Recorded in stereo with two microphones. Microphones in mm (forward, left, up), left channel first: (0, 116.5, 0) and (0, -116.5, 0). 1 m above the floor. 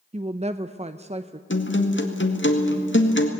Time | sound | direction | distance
0.1 | a woman speaking | 30° right (ahead or behind) | 0.5 m
1.5 | a guitar | 55° left (ahead or behind) | 1.9 m